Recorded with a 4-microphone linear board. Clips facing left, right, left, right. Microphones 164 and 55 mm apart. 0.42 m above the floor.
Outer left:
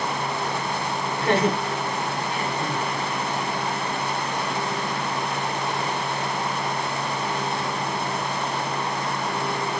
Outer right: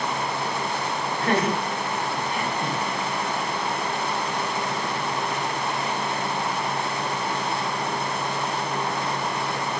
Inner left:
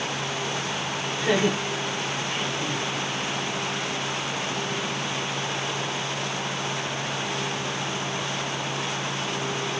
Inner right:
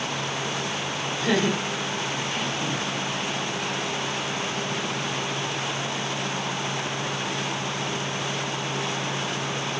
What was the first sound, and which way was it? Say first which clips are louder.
Laughter: outer left 2 dB, inner left 1 dB; 25° left (ahead or behind).